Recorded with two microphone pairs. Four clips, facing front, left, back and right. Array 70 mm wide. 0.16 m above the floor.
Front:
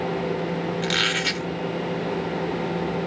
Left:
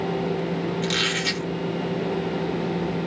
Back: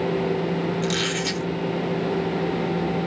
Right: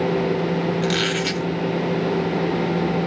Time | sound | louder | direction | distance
0.8 | a squeak | right 4 dB, even | 20° right | 1.5 m